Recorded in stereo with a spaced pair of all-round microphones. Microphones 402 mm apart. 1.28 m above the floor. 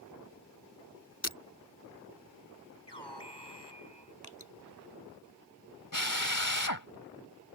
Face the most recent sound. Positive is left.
turn(degrees=50)  # may be behind; listen again after turning